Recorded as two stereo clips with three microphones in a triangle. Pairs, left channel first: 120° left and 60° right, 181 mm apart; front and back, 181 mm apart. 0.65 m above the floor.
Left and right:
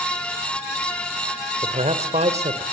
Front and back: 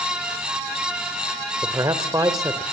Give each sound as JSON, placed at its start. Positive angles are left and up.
{"t": 1.6, "sound": "a man speaking", "azimuth_deg": -110, "distance_m": 2.5}